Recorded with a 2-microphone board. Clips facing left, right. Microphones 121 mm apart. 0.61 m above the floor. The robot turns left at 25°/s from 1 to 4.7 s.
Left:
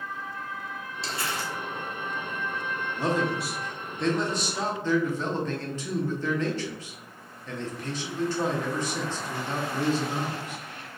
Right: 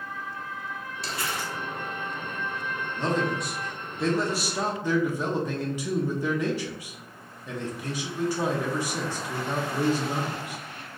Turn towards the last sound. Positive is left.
turn(degrees=-25)